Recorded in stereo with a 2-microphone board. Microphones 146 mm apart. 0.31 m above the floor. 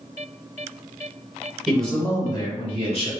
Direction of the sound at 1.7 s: 5° right (ahead or behind).